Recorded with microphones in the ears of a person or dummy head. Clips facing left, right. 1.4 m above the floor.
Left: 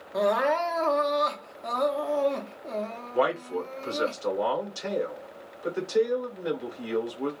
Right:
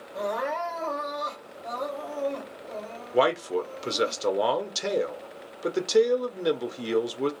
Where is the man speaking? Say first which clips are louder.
Right 3 dB; 50° right (ahead or behind), 0.6 m.